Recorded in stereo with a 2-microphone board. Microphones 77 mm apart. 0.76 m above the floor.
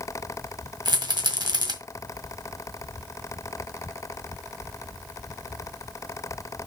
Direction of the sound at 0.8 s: 75° right (ahead or behind).